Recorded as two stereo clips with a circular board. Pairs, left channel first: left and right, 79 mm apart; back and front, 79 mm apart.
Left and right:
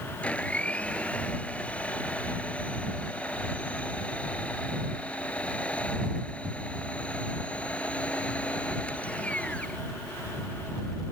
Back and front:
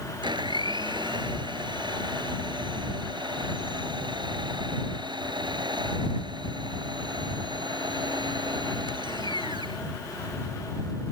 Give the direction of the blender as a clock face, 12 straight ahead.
11 o'clock.